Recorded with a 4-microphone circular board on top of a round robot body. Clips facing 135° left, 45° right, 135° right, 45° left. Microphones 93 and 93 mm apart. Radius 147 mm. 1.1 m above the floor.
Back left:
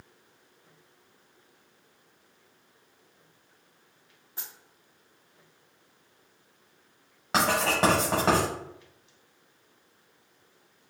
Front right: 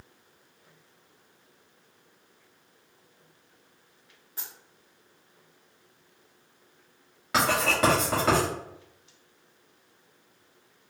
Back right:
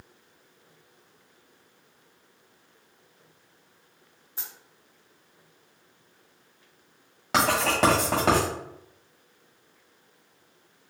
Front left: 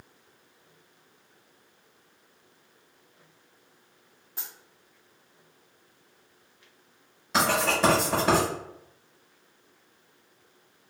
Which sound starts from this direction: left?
A dropped coin, at 4.4 s.